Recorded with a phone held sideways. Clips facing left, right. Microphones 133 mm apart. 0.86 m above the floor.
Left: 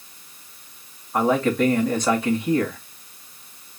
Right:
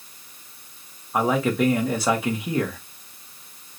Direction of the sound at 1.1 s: 5° right (ahead or behind).